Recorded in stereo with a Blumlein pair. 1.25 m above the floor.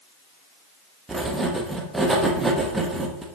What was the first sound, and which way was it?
Writing, 10° right.